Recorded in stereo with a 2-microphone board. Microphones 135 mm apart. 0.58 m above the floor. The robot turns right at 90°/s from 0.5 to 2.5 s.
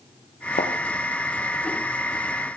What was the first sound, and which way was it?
A thud, 80° left.